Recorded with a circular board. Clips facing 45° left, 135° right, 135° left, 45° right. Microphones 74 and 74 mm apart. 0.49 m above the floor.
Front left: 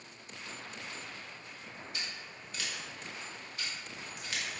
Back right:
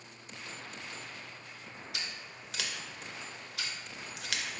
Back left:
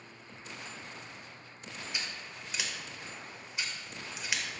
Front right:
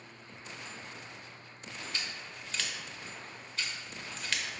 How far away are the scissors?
About 0.5 m.